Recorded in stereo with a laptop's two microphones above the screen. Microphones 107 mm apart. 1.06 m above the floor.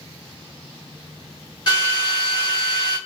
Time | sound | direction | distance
1.7 | a drill | 40° left (ahead or behind) | 2.5 m